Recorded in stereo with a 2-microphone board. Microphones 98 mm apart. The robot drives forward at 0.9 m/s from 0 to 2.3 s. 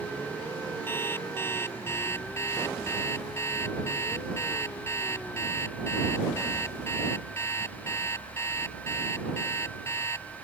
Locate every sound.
0.9 s an alarm clock: 20° left (ahead or behind); by 10.3 s 25° left (ahead or behind)